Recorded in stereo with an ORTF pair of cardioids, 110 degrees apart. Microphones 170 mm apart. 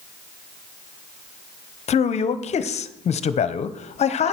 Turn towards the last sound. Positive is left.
turn(degrees=40)